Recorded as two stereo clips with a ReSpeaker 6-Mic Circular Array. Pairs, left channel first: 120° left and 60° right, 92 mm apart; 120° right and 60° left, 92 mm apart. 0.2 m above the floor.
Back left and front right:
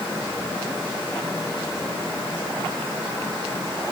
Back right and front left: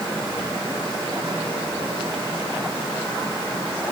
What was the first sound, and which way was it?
Only background noise.